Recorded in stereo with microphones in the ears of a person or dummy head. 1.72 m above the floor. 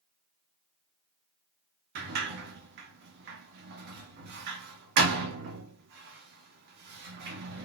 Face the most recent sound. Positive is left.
turn(degrees=-55)  # may be behind; listen again after turning